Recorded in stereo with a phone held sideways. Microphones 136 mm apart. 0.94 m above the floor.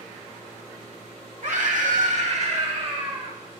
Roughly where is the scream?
Right.